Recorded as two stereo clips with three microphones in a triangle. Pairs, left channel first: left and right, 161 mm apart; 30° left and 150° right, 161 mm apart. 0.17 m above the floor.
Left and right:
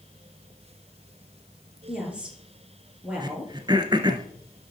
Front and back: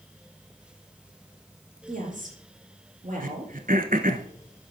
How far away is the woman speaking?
About 4 m.